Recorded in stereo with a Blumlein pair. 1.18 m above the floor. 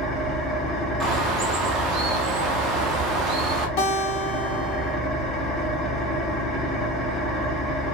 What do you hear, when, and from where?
0.0 s an engine running: 10° left, 0.7 m
1.0 s a bird: 20° right, 0.7 m
3.8 s a guitar: 45° left, 0.9 m